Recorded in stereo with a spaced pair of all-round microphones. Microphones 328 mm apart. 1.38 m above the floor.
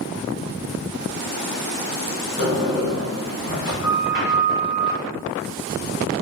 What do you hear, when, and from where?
2.4 s a sliding door: 65° right (ahead or behind), 1.1 m